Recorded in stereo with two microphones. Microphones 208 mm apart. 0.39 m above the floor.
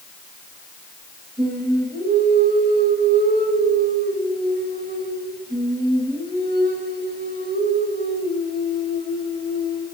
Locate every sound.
1.4 s singing: 45° right (ahead or behind), 2 m